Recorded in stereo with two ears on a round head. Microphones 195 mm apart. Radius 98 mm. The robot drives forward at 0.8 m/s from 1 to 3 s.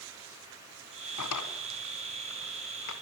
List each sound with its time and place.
1.2 s a drawer: 85° left, 3 m; by 2.9 s 70° left (ahead or behind), 3 m